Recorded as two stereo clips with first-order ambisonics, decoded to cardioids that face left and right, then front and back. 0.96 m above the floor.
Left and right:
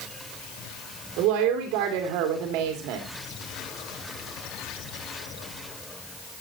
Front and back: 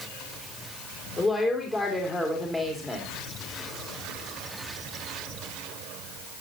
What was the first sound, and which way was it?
A woman speaking, 70° right.